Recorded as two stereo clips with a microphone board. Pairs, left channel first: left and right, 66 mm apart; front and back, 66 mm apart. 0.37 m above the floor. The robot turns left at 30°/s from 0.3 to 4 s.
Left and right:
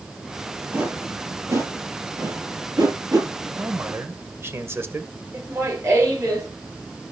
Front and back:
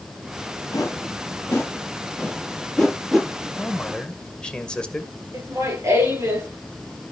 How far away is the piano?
No piano in this recording.